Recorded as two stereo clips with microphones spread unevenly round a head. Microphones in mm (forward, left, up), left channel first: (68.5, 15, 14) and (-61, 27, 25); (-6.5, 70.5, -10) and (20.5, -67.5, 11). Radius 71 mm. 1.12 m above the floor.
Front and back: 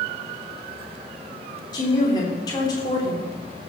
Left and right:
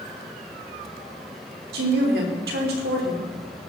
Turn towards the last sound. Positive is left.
turn(degrees=-70)